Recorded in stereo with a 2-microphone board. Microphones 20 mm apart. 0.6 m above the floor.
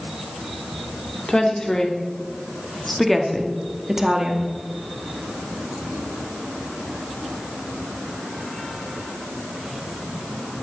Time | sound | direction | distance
1.3 | a woman speaking | 35° left (ahead or behind) | 1.8 m